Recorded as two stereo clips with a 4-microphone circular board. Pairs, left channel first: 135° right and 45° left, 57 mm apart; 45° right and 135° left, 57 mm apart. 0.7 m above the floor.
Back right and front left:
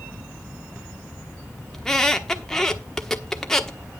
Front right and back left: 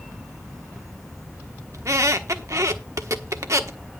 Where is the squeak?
145° left, 1.1 m.